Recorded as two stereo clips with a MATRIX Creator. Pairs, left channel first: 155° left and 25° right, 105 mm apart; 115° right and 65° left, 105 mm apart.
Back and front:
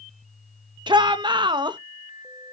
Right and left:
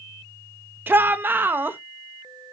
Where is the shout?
Straight ahead, 1.0 m.